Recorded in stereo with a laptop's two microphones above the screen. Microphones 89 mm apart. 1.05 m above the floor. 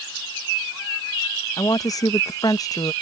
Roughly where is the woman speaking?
Left.